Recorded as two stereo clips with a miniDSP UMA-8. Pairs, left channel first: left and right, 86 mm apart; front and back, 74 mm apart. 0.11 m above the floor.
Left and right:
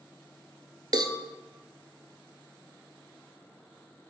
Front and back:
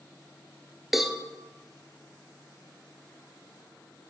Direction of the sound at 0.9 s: 95° right.